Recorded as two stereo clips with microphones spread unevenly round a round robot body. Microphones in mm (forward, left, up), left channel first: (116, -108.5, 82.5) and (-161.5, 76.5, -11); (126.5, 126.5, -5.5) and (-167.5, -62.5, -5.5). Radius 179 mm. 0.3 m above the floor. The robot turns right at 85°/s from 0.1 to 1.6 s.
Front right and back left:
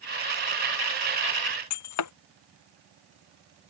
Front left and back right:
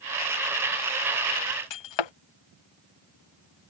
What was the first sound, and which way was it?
Breaking glass, 10° left.